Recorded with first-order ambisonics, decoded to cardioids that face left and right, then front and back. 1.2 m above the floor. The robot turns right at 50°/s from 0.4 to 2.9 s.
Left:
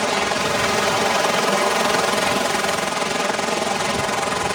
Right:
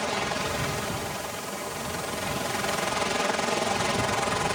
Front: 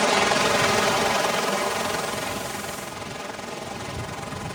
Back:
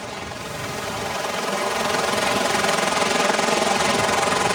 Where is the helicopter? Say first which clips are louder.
Left 8 dB, front 12 dB; 35° left; by 4.5 s 160° left.